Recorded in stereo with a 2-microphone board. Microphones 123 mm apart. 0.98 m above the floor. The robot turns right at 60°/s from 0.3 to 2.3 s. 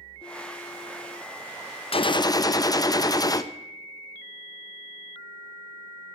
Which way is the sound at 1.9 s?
50° left (ahead or behind).